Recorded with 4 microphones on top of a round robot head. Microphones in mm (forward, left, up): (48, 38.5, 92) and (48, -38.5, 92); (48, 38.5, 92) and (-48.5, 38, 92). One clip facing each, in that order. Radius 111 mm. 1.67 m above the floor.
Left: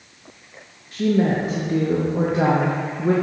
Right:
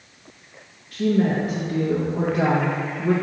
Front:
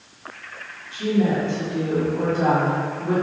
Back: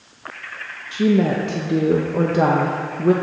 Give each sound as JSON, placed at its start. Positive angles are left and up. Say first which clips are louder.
{"t": 0.9, "sound": "a woman speaking", "louder": "left 1 dB, back 4 dB", "azimuth_deg": 165, "distance_m": 0.6}